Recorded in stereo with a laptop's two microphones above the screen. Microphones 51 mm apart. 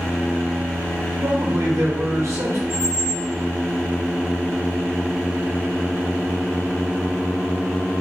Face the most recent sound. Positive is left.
turn(degrees=-70)  # may be behind; listen again after turning